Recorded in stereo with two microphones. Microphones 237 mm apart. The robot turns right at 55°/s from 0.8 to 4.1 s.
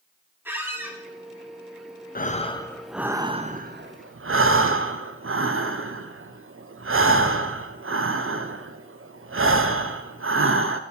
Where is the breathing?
140° left, 0.5 m; by 10.8 s 115° right, 0.5 m.